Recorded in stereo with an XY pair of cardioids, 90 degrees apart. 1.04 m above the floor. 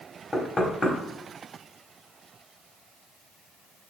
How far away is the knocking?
About 4 m.